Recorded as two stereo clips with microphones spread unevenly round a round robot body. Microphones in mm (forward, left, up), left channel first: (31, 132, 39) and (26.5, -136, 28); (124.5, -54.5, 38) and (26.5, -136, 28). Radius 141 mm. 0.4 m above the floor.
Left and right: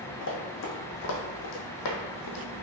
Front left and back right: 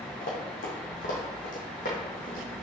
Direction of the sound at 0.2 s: 45° left.